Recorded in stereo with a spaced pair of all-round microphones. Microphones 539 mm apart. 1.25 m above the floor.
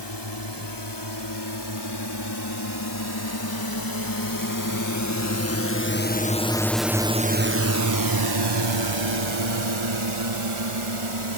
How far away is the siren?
I don't hear a siren.